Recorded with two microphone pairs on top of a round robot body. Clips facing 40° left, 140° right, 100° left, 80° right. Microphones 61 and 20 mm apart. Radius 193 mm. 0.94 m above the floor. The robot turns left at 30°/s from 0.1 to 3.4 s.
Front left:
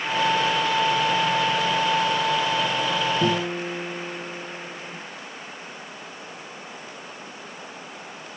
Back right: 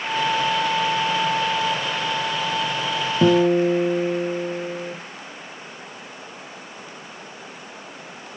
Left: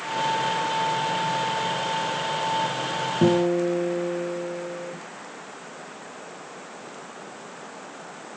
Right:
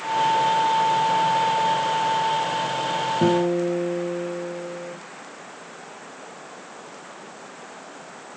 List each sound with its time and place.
3.2 s a guitar: 170° right, 0.9 m; by 5.0 s 175° right, 0.9 m